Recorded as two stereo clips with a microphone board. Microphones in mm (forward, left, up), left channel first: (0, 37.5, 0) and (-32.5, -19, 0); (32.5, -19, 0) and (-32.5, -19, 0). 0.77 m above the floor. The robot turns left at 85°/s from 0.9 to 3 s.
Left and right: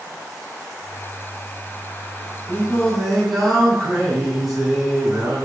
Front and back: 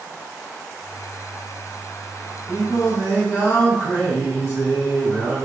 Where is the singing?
15° left, 3.5 m; by 5.5 s 30° right, 3.5 m.